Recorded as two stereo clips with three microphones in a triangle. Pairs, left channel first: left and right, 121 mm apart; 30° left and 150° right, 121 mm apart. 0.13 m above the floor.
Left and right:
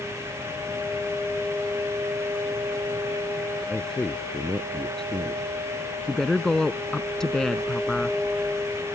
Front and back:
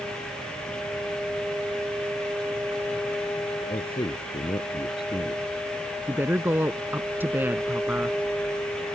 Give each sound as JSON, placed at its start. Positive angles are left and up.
{"t": 3.7, "sound": "a man speaking", "azimuth_deg": 5}
{"t": 6.1, "sound": "a woman speaking", "azimuth_deg": 170}